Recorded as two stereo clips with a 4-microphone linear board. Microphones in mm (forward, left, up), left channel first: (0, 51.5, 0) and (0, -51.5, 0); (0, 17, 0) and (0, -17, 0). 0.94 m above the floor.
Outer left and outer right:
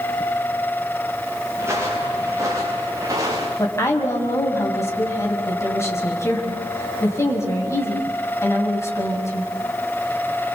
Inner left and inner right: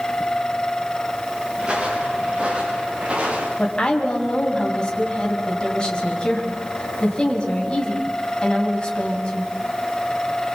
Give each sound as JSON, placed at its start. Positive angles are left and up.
{"t": 1.6, "sound": "footsteps", "side_deg": -25, "distance_m": 8.0}
{"t": 3.6, "sound": "a woman speaking", "side_deg": 25, "distance_m": 5.5}